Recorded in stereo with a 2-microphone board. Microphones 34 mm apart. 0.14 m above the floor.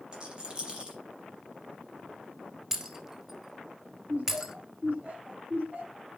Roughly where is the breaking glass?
Centre.